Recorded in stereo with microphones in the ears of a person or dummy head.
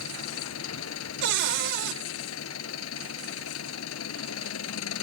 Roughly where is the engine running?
Left.